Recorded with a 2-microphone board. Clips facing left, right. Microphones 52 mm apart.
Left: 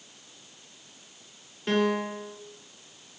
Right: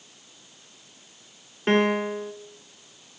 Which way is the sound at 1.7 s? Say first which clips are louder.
Right 4 dB; 40° right (ahead or behind).